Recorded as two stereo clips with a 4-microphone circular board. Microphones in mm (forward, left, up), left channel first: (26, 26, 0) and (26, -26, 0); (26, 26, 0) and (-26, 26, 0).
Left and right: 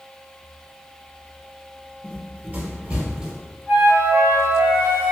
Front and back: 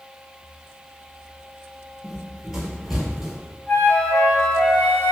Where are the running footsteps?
95° right, 1.5 m; by 3.6 s 150° right, 1.0 m.